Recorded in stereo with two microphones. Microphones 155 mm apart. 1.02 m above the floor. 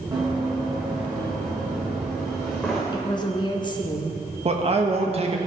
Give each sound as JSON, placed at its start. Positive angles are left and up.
{"t": 0.1, "sound": "running footsteps", "side_deg": -20, "distance_m": 4.0}
{"t": 2.9, "sound": "a woman speaking", "side_deg": 30, "distance_m": 1.0}
{"t": 4.5, "sound": "a man speaking", "side_deg": -40, "distance_m": 1.2}